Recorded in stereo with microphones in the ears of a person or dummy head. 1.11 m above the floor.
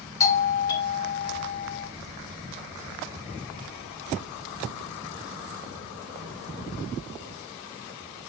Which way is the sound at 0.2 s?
20° left (ahead or behind).